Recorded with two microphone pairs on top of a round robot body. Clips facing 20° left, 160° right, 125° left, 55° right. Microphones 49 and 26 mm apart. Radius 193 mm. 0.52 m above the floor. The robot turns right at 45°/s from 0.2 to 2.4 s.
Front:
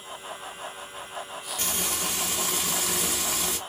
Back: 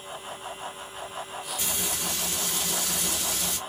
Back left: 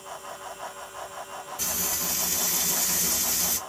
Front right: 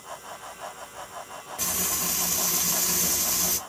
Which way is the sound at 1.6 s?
25° right.